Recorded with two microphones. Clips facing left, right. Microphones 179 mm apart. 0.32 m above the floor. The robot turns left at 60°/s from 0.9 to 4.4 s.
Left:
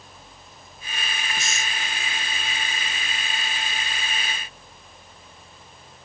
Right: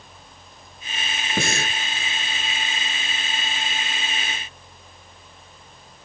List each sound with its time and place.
1.4 s breathing: 60° right (ahead or behind); by 1.8 s 75° right (ahead or behind)